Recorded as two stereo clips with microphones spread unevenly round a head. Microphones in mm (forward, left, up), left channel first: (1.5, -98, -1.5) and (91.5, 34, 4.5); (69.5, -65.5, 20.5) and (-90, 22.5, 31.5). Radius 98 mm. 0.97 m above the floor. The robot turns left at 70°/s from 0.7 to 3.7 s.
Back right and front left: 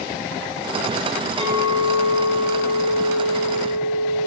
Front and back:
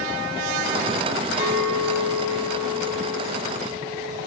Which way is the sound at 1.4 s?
170° right.